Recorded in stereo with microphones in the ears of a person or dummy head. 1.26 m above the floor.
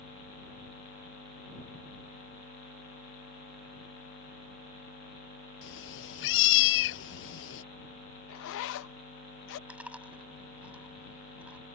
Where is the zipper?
75° left (ahead or behind).